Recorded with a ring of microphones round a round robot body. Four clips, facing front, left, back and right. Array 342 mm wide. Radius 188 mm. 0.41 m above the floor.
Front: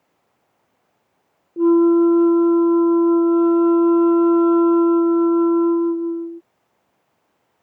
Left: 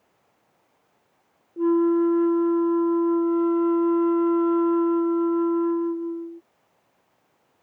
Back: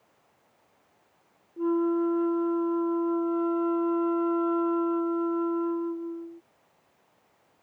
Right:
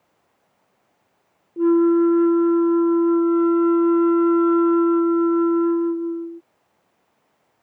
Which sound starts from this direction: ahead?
A flute, at 1.6 s.